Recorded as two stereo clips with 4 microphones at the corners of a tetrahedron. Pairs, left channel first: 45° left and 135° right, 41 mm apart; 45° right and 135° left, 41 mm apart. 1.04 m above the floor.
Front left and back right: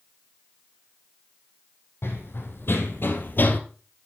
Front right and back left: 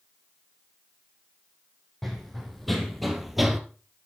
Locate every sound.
2.0 s running footsteps: 40° left, 3 m; by 3.6 s 55° left, 1.4 m